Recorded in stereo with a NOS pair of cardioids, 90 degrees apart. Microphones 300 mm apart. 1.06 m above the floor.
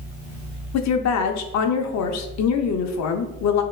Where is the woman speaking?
65° left, 0.7 m.